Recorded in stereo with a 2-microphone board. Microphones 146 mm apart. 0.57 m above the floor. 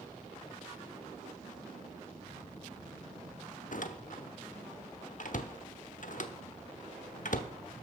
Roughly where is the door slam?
Left.